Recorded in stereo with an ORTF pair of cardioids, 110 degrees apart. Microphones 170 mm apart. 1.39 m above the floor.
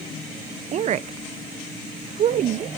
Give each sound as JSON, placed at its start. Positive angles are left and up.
{"t": 0.7, "sound": "a woman speaking", "azimuth_deg": -45, "distance_m": 0.6}